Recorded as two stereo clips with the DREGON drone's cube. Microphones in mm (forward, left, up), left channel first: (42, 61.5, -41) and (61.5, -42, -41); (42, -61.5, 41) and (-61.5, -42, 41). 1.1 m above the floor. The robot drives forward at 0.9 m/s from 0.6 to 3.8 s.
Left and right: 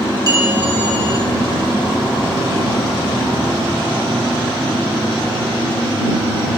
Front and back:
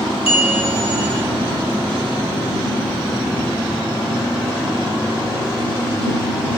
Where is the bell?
30° right, 5 m.